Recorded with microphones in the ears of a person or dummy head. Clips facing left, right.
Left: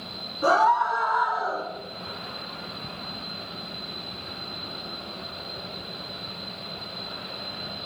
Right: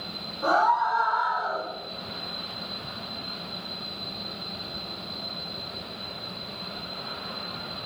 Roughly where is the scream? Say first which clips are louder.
Left 2 dB; left.